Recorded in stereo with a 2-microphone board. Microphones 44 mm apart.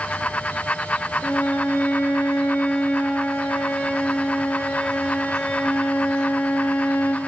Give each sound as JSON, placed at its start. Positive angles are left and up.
{"t": 1.2, "sound": "a violin", "side_deg": 55, "distance_m": 6.0}